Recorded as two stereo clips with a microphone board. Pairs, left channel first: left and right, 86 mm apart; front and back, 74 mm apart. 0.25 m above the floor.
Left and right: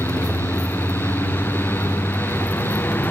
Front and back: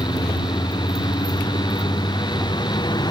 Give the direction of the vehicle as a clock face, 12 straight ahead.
11 o'clock.